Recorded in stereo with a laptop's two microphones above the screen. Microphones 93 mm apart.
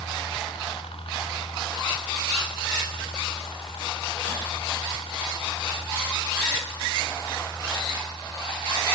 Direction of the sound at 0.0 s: 70° left (ahead or behind).